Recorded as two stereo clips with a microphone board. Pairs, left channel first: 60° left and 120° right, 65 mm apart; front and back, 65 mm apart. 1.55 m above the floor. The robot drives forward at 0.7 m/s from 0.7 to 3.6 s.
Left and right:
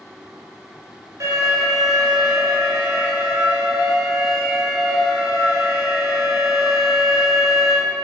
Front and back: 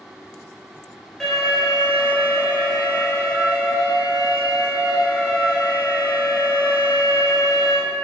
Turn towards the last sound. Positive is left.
turn(degrees=-145)